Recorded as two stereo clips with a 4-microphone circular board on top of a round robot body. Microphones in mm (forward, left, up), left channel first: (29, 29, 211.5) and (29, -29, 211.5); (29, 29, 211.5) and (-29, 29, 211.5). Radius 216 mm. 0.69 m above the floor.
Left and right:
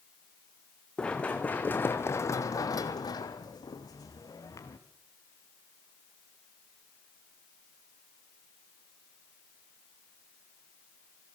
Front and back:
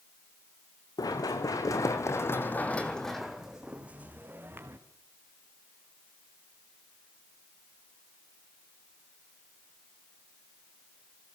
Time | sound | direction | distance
1.0 | running footsteps | 15° left | 3 m